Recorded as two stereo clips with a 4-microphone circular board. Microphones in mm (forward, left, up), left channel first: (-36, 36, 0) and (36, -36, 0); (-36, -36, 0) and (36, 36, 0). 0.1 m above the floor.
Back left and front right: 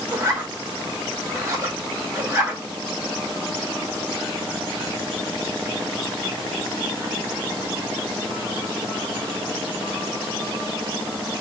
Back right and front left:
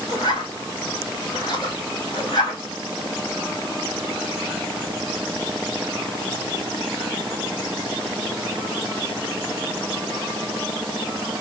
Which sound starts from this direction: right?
A zipper, at 0.1 s.